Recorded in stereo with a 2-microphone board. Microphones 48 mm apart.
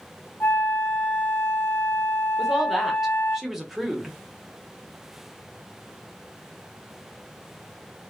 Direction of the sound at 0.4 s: 55° left (ahead or behind).